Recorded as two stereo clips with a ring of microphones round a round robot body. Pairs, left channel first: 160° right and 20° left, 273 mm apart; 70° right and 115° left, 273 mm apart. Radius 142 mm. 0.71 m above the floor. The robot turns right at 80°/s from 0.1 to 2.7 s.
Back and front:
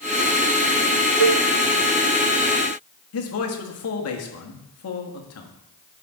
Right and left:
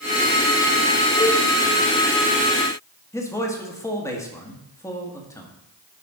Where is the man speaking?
145° right, 1.5 m.